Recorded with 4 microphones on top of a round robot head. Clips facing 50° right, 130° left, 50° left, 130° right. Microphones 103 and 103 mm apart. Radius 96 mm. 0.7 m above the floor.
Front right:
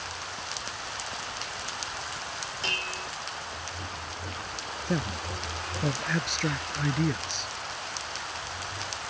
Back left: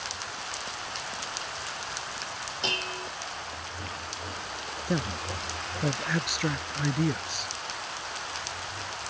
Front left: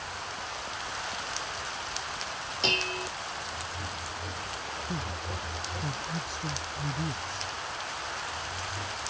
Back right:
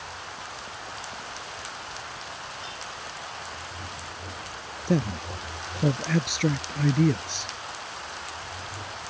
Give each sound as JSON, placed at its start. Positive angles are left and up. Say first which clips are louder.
{"t": 2.6, "sound": "dishes clattering", "louder": "back left 3 dB, front left 6 dB", "azimuth_deg": 60}
{"t": 4.9, "sound": "a man speaking", "louder": "even, back right 13 dB", "azimuth_deg": -145}